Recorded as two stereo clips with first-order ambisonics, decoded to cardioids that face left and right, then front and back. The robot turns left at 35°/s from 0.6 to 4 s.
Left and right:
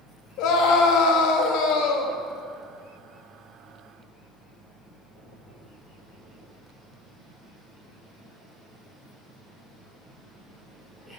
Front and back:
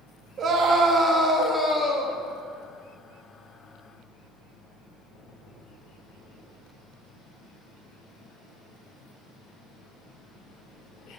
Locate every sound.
0.4 s a scream: 120° left, 1.3 m; by 2.2 s 65° left, 1.3 m